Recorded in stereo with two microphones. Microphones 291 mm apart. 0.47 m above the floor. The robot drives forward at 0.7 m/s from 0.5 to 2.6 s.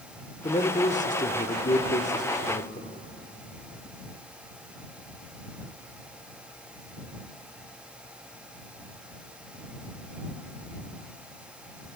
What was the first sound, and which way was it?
A man speaking, 20° left (ahead or behind).